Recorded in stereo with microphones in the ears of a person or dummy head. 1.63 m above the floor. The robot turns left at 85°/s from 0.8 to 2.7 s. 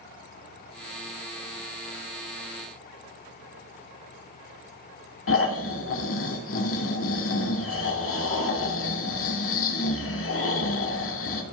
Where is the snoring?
65° left (ahead or behind), 2 m.